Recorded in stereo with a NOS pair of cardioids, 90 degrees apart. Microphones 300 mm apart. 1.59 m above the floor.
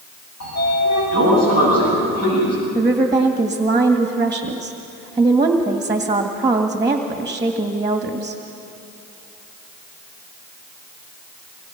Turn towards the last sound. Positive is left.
turn(degrees=-10)